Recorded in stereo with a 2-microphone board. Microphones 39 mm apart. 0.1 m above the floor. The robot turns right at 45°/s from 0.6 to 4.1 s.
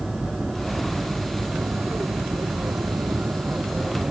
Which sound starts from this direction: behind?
An aircraft, at 0.0 s.